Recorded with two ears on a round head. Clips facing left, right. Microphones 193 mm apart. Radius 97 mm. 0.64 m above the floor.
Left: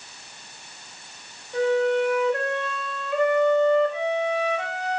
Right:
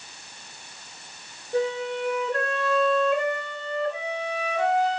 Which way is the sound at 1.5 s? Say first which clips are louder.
Left 5 dB; 35° right (ahead or behind).